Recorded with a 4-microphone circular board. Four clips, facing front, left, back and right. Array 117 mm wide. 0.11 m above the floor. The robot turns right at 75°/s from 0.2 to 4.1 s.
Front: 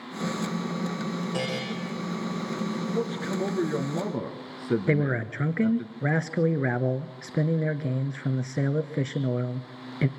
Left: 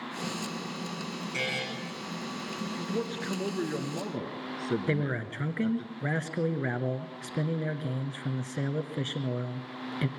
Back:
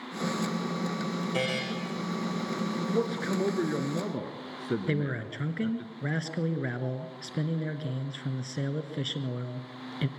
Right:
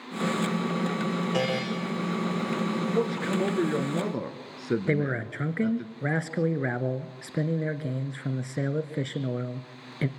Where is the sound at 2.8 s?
160° right, 1.4 m; by 5.9 s 60° right, 1.4 m.